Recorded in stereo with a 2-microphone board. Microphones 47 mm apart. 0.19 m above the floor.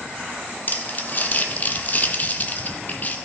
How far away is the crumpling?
About 0.8 m.